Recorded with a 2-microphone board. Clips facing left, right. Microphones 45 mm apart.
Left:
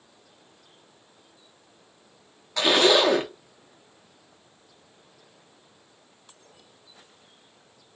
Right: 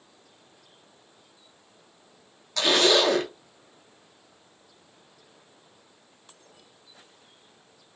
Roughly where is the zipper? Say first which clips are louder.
Left 2 dB; centre.